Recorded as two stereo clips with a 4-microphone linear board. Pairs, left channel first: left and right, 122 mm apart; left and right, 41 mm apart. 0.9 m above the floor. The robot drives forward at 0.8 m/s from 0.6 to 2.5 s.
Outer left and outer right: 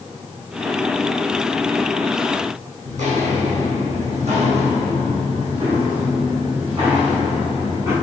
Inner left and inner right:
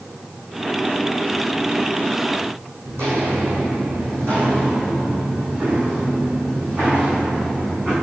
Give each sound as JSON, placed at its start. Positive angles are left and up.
{"t": 2.9, "sound": "footsteps", "side_deg": -75, "distance_m": 3.0}